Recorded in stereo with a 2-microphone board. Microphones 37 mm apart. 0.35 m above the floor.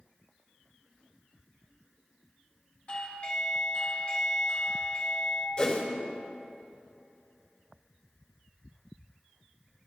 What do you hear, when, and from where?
2.9 s a doorbell: 35° left (ahead or behind), 1.7 m
5.6 s a whoosh: 30° left (ahead or behind), 2 m